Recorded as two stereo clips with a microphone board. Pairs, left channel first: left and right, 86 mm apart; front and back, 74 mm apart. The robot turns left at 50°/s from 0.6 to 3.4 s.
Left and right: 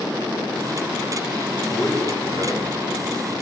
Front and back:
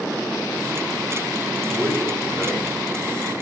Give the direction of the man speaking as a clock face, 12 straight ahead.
9 o'clock.